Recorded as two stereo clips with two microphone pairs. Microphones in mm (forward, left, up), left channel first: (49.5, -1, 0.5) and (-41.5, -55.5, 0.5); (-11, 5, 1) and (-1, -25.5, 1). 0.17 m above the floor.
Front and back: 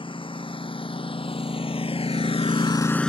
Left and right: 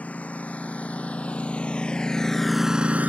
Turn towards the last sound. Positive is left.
turn(degrees=-55)